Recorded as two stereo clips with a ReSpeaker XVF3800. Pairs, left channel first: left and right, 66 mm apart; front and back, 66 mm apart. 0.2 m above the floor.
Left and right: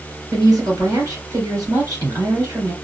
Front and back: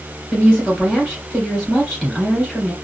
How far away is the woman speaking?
About 2.5 m.